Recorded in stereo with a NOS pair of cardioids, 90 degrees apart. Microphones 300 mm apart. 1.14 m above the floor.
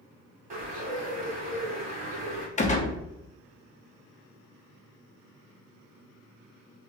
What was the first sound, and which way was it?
A bird, 30° right.